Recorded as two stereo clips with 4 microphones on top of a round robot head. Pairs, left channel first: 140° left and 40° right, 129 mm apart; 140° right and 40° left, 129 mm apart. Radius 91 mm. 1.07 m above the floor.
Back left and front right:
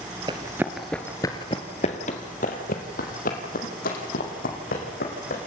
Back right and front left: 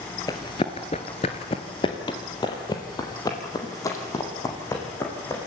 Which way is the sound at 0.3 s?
85° right.